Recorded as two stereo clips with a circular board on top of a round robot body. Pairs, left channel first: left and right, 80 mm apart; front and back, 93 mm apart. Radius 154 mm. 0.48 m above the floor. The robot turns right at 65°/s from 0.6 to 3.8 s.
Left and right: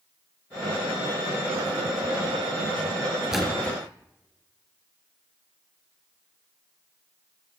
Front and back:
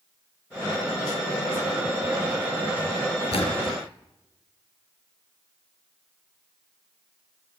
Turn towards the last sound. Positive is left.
turn(degrees=25)